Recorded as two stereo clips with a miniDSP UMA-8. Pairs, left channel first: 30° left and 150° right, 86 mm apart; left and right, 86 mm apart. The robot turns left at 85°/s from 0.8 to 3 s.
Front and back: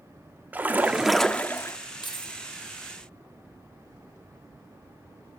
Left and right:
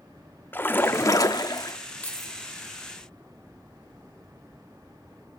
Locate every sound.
0.5 s a splash: 150° left, 1.0 m; by 1.8 s 65° left, 1.0 m
2.0 s keys jangling: 20° left, 1.8 m; by 2.4 s 10° right, 1.8 m